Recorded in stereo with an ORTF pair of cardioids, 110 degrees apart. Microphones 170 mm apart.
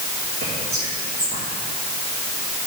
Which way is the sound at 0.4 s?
70° right.